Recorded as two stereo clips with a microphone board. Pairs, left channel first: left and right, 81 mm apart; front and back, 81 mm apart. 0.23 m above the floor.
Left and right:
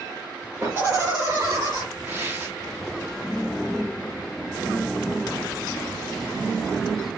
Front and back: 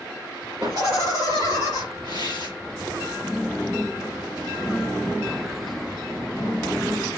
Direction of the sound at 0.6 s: 150° right.